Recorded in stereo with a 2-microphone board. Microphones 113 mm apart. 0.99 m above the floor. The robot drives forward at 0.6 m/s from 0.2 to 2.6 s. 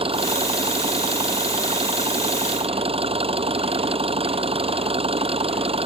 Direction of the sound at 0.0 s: 55° right (ahead or behind).